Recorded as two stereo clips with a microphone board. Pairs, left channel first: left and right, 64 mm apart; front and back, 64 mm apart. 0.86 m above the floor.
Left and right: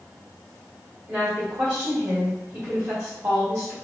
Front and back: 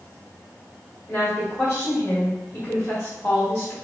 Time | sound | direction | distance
1.1 | a woman speaking | 25° right | 1.4 m